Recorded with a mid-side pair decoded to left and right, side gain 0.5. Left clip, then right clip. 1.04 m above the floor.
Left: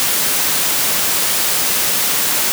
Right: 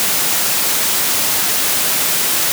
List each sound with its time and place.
Only background noise.